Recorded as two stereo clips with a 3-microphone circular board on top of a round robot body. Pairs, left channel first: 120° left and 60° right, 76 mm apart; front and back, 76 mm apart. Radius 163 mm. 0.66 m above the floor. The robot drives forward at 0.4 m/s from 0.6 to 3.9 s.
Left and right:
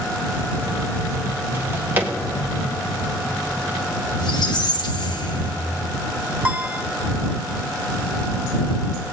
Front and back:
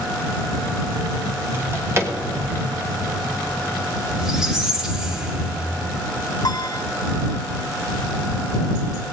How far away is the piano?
About 0.8 m.